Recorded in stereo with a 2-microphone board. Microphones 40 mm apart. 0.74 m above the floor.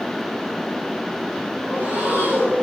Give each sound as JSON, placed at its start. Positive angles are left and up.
{"t": 1.6, "sound": "breathing", "side_deg": -40, "distance_m": 5.0}